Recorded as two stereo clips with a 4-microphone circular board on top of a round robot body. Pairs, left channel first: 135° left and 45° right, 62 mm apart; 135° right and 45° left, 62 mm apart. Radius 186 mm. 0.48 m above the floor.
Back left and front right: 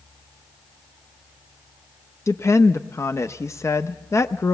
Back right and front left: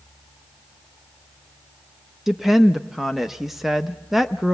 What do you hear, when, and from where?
2.3 s a woman speaking: 130° left, 0.8 m